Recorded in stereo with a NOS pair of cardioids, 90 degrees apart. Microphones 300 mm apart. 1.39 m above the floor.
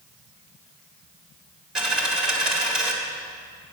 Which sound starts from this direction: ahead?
A dropped coin, at 1.8 s.